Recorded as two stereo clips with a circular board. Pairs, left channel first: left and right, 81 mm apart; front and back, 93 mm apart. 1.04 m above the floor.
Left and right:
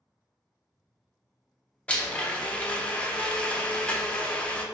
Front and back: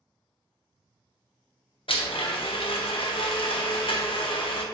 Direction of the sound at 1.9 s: 15° left.